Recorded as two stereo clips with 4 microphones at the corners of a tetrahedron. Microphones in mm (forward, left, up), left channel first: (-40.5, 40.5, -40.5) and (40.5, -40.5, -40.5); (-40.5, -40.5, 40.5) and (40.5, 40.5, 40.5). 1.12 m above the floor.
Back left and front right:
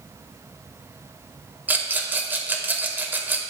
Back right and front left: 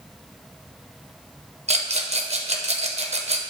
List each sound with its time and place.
1.7 s a rattle: 30° left, 0.6 m